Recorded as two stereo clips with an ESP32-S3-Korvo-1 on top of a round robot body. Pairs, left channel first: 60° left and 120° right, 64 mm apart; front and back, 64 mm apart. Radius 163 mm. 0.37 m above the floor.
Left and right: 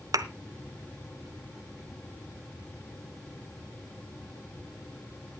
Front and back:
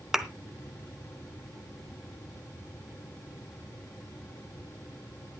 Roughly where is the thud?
Right.